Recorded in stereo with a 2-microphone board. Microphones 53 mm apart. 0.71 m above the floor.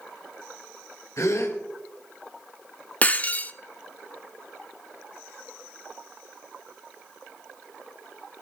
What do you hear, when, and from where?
1.2 s a gasp: 70° left (ahead or behind), 3 m
3.0 s breaking glass: 30° left (ahead or behind), 0.8 m